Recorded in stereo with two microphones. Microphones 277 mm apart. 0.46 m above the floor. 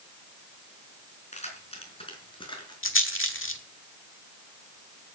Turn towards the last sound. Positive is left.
turn(degrees=45)  # may be behind; listen again after turning